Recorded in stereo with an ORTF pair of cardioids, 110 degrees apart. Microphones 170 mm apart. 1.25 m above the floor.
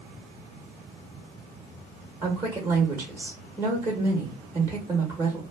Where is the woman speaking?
20° right, 1.0 m.